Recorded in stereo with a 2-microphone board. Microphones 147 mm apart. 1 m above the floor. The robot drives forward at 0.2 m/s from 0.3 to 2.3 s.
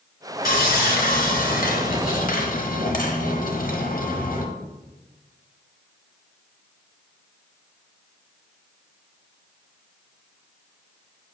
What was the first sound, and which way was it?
Sawing, 80° left.